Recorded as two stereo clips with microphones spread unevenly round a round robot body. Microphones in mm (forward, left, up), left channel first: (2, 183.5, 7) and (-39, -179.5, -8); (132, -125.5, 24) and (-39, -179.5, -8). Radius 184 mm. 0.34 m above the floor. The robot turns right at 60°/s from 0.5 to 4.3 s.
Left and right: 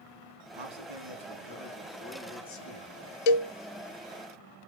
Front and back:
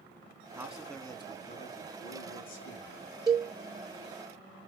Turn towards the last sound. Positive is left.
turn(degrees=160)